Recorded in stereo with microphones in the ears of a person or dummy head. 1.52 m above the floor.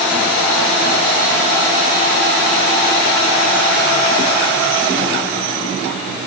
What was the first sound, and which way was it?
Only background noise.